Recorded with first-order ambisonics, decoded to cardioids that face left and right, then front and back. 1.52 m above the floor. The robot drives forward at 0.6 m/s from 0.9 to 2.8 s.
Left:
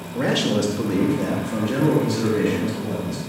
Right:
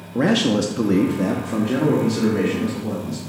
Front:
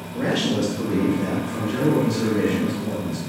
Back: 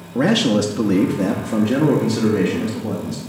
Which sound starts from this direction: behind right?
A man speaking, at 0.1 s.